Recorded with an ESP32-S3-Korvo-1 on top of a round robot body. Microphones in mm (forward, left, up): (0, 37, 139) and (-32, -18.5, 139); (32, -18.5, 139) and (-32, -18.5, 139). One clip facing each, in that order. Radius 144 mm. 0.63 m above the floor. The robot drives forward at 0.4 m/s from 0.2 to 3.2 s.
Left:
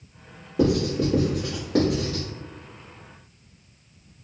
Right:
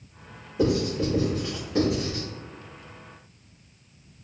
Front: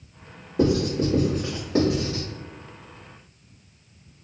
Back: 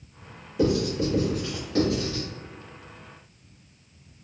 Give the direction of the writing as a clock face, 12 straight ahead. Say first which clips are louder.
Left 2 dB, front 2 dB; 11 o'clock.